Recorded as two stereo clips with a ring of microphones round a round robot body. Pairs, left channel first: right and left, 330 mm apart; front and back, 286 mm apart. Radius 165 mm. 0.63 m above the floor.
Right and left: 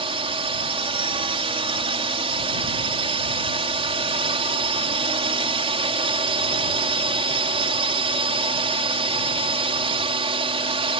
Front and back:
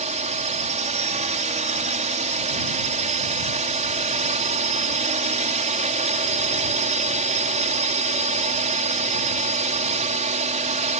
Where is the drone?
145° left.